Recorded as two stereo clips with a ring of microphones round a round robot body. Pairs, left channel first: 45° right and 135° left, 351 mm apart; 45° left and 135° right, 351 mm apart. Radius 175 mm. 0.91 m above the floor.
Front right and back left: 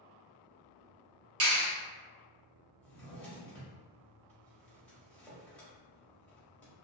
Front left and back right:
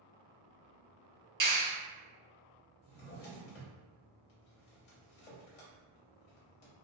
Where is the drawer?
40° left, 0.9 m.